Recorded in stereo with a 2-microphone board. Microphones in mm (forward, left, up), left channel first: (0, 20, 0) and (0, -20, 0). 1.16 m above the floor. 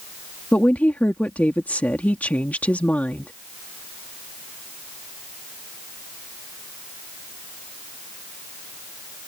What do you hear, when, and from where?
0.5 s a woman speaking: 40° left (ahead or behind)